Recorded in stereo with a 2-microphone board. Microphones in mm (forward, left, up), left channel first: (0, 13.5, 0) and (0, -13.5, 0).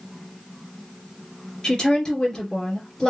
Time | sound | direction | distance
1.6 | a woman speaking | 25° left (ahead or behind) | 1.9 m